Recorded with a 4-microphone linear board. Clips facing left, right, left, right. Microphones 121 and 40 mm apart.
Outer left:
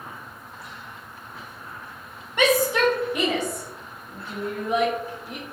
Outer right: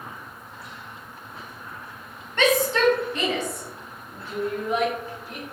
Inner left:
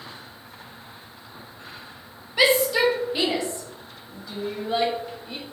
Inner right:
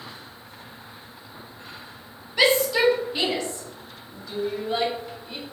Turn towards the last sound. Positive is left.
turn(degrees=15)  # may be behind; listen again after turning